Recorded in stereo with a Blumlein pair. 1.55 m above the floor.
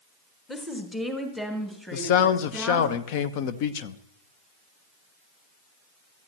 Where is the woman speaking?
10° left, 1.5 m; by 2.9 s 5° left, 3.5 m.